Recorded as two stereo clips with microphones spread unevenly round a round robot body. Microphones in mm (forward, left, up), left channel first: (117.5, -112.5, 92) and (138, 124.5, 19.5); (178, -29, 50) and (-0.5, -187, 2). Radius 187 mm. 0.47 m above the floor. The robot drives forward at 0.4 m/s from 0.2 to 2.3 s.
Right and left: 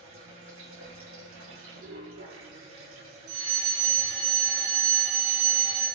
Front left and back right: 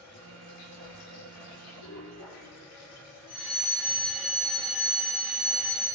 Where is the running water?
55° left, 5.5 m; by 6.0 s 60° left, 5 m.